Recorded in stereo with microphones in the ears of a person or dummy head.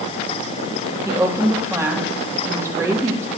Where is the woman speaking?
10° right (ahead or behind), 3 m.